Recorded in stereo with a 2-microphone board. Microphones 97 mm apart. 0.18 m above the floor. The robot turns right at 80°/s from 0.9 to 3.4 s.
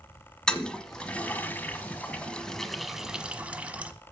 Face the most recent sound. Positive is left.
turn(degrees=-15)  # may be behind; listen again after turning